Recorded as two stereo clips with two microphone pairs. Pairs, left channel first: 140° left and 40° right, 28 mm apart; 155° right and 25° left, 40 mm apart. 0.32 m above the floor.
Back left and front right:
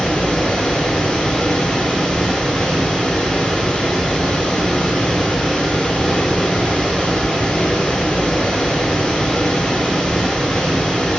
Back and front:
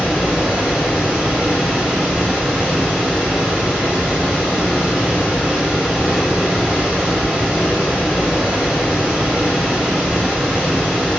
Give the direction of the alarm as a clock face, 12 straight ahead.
I don't hear an alarm.